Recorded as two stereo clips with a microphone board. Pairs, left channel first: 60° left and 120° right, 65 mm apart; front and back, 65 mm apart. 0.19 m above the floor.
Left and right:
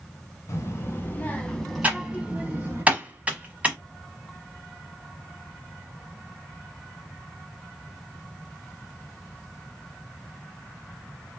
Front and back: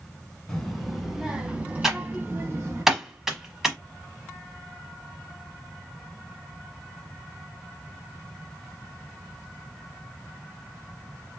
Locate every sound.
0.5 s a child speaking: 85° left, 1.1 m; by 2.8 s 160° right, 1.1 m
1.8 s typing on a keyboard: 110° right, 0.9 m